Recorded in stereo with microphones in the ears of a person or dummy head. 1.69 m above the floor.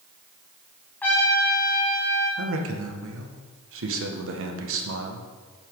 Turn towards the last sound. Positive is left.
turn(degrees=-85)